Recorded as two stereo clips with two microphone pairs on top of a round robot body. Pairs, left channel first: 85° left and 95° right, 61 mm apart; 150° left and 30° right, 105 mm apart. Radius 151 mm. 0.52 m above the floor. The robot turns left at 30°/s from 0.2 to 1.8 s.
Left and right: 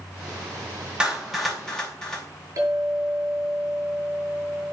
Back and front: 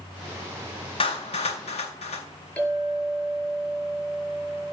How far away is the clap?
About 4.5 m.